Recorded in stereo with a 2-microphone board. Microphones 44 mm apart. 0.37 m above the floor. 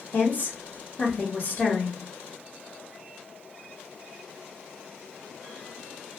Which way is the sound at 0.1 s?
45° left (ahead or behind).